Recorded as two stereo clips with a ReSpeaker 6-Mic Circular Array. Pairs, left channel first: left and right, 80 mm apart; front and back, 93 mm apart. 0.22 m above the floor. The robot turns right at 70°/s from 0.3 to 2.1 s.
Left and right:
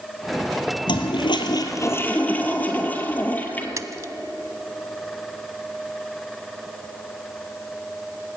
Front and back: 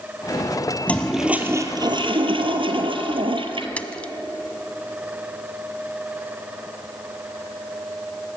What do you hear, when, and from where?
0.9 s a toilet flushing: 75° left, 2 m; by 3.7 s 160° left, 2 m
3.8 s a splash: 70° right, 1.0 m